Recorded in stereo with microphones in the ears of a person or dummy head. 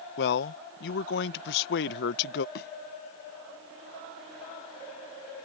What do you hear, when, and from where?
0.2 s a man speaking: 60° left (ahead or behind)
2.5 s a thud: 55° left (ahead or behind)